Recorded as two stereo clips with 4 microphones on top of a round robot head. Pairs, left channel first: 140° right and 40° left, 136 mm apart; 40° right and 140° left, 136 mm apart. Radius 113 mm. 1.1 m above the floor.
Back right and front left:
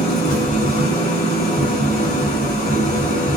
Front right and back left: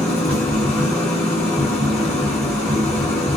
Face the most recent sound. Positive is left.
turn(degrees=-125)